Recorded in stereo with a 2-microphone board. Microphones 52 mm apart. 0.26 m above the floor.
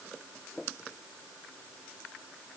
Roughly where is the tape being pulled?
No tape being pulled in this recording.